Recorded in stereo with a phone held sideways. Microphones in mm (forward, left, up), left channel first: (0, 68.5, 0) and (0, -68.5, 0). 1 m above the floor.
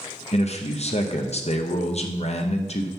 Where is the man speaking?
50° left (ahead or behind), 0.8 m.